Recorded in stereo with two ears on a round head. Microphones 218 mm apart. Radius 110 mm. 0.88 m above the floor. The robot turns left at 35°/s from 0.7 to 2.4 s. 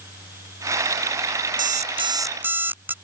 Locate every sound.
1.6 s an alarm clock: 35° right (ahead or behind); by 2.9 s 10° right (ahead or behind)